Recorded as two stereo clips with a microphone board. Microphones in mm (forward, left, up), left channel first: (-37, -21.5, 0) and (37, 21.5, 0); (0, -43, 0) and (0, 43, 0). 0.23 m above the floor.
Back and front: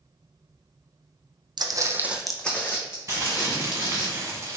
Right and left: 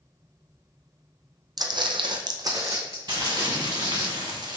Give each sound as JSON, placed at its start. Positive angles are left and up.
{"t": 1.6, "sound": "footsteps", "azimuth_deg": 50, "distance_m": 0.5}
{"t": 3.1, "sound": "crumpling", "azimuth_deg": 80, "distance_m": 0.9}